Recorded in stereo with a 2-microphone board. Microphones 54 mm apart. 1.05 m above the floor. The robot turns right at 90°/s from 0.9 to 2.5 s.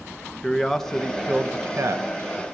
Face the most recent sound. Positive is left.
turn(degrees=-45)